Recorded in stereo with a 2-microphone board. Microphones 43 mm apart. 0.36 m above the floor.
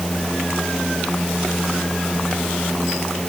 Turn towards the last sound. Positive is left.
No sound to turn to.